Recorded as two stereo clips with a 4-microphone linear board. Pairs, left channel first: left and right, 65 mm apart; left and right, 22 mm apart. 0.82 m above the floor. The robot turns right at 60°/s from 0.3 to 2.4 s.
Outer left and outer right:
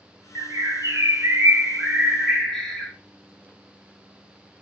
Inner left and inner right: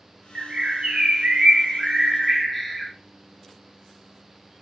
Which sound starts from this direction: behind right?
A bird, at 0.3 s.